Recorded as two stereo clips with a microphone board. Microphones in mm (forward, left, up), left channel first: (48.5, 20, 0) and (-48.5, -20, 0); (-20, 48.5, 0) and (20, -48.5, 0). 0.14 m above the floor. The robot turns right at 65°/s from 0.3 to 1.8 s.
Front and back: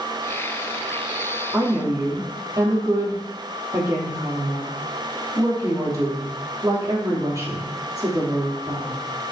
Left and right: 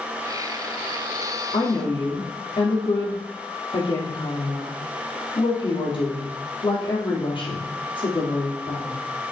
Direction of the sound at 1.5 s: 130° left.